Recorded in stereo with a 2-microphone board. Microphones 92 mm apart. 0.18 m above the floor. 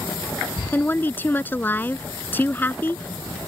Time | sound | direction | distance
0.7 | a woman speaking | 20° left (ahead or behind) | ?